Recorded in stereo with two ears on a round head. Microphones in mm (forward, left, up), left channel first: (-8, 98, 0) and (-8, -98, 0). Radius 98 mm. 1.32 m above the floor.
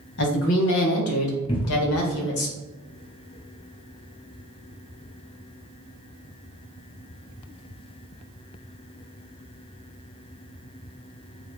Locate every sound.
0.2 s a woman speaking: 60° left (ahead or behind), 1.3 m; by 2.5 s 45° left (ahead or behind), 0.7 m
1.5 s a cupboard door: 25° left (ahead or behind), 0.6 m